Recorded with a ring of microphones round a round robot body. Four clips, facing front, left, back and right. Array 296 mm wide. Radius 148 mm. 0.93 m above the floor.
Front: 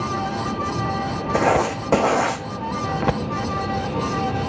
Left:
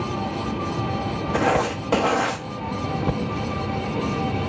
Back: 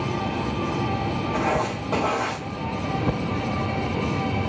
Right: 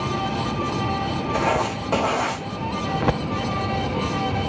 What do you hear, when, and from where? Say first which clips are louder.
1.3 s writing: left 2 dB, front 7 dB; 10° left, 0.7 m